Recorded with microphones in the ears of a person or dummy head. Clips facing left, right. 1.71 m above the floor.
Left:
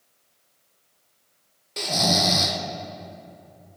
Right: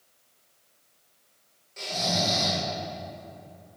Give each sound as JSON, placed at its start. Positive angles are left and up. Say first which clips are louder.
{"t": 1.8, "sound": "snoring", "louder": "left 5 dB", "side_deg": 70, "distance_m": 1.0}